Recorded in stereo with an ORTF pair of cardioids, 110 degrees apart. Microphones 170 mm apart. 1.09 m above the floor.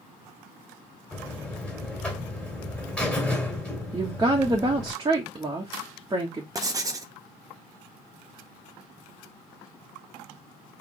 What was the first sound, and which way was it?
A buzzer, 5° left.